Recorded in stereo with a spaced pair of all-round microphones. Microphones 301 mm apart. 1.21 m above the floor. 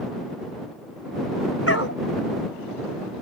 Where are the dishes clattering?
I don't hear dishes clattering.